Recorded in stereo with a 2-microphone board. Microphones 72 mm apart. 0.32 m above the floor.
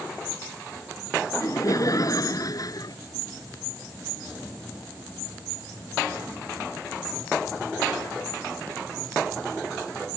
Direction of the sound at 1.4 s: 45° left (ahead or behind).